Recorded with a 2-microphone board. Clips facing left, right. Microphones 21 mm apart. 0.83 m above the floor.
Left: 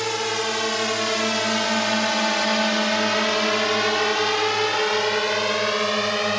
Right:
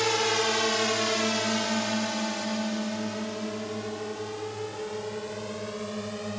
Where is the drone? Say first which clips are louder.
Left 1 dB; centre (ahead or behind); by 6.4 s 50° left (ahead or behind).